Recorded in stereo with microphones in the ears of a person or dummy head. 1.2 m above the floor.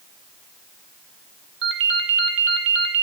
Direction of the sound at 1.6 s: 55° right (ahead or behind).